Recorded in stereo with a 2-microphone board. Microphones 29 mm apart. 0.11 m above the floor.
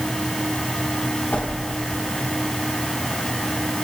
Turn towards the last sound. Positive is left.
turn(degrees=70)  # may be behind; listen again after turning